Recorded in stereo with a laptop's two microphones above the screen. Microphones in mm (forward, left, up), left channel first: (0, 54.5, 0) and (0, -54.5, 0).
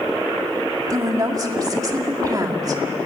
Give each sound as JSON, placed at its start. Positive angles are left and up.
{"t": 0.9, "sound": "a woman speaking", "side_deg": -35, "distance_m": 2.0}